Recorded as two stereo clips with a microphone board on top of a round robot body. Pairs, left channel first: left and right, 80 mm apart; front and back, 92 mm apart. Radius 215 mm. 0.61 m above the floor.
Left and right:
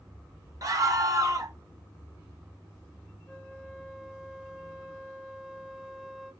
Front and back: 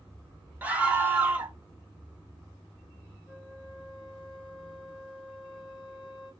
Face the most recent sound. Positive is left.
turn(degrees=0)